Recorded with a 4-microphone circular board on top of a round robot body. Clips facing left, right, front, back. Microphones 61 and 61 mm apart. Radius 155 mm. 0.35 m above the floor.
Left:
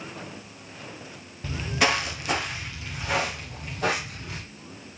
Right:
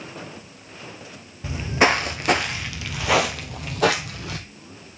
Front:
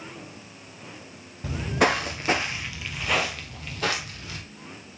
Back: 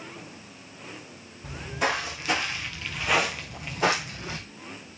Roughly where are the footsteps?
Ahead.